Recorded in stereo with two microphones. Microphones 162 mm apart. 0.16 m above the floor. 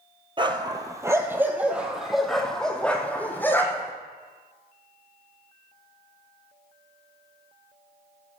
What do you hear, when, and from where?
0.4 s a dog barking: 30° right (ahead or behind), 1.4 m; by 3.9 s 15° left (ahead or behind), 2.5 m